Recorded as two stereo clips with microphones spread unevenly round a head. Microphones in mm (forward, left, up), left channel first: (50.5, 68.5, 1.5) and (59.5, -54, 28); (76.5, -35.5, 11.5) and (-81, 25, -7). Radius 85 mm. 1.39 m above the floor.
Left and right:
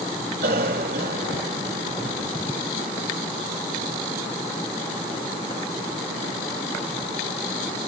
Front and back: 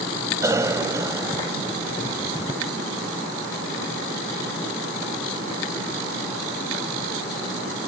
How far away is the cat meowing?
I don't hear a cat meowing.